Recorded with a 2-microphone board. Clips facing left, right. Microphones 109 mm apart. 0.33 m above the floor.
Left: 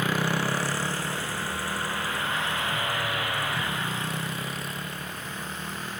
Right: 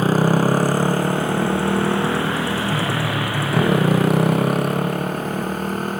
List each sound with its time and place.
0.0 s a motorcycle: 40° right (ahead or behind); by 6.0 s 55° right (ahead or behind)